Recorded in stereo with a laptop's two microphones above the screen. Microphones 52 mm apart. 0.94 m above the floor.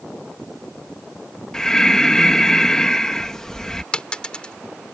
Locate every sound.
1.5 s breathing: 10° left (ahead or behind)
3.9 s a dropped coin: 20° left (ahead or behind)